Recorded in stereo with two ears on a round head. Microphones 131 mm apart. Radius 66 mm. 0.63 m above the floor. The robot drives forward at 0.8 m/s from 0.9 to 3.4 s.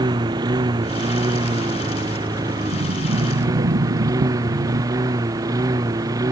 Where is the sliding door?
75° right (ahead or behind); by 4.9 s 70° right (ahead or behind).